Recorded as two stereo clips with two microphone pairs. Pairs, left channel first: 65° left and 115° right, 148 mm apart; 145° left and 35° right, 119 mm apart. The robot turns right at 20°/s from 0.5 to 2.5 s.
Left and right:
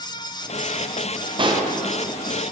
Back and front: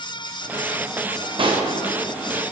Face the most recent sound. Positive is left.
turn(degrees=-45)